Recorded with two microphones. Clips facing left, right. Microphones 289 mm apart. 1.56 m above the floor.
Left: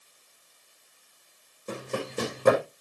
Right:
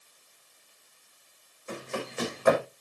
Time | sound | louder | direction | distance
1.7 | running footsteps | left 3 dB | 45° left (ahead or behind) | 5 m